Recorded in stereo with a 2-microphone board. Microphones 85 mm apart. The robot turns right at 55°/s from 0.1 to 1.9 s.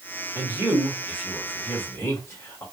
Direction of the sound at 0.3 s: 35° right (ahead or behind).